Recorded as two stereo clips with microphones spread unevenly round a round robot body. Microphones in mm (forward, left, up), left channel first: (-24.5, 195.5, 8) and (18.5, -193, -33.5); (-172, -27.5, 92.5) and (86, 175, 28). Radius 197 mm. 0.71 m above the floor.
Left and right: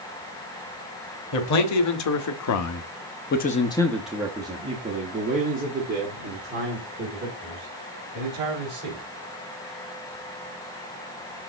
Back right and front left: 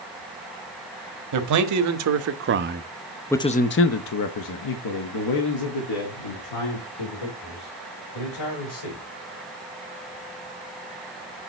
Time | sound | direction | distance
1.3 | a man speaking | 45° left | 1.3 m